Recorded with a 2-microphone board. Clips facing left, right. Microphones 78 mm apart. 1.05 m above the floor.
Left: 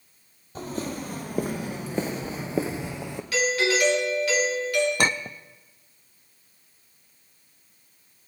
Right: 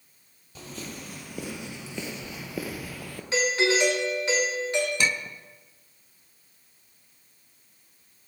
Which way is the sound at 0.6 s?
40° left (ahead or behind).